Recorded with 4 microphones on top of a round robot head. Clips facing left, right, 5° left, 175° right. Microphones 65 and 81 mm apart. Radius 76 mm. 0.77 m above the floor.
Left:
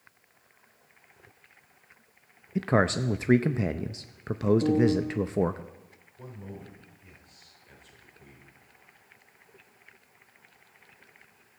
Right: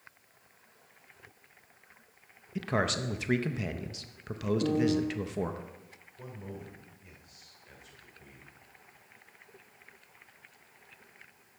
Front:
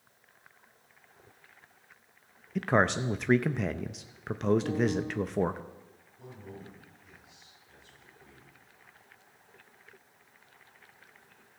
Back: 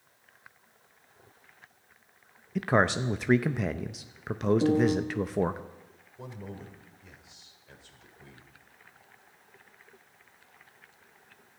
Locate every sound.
2.5 s a man speaking: 100° left, 0.6 m
4.6 s a piano: straight behind, 3 m
6.2 s a man speaking: 175° right, 3.5 m